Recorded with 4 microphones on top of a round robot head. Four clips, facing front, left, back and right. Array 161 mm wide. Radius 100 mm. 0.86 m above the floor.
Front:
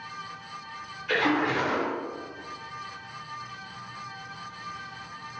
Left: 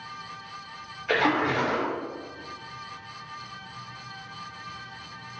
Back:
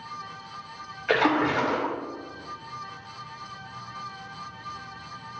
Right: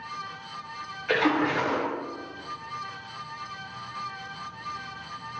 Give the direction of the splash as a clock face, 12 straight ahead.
6 o'clock.